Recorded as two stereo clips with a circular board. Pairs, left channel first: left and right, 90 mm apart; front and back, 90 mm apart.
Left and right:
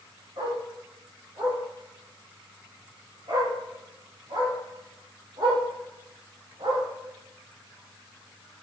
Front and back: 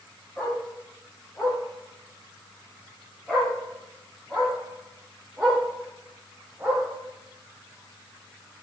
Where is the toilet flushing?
I don't hear a toilet flushing.